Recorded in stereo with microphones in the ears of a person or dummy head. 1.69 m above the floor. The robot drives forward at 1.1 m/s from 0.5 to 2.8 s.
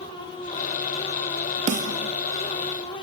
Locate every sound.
1.7 s a snare drum: 30° right (ahead or behind); by 2.1 s 25° right (ahead or behind)